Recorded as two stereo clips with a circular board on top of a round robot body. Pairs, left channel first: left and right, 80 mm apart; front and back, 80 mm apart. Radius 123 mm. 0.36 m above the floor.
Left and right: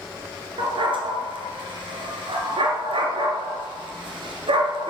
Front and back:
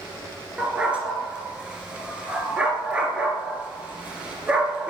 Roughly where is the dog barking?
Right.